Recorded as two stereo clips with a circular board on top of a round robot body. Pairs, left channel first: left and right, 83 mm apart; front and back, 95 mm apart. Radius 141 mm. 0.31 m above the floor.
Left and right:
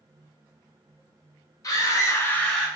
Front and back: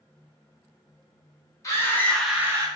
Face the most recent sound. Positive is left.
turn(degrees=175)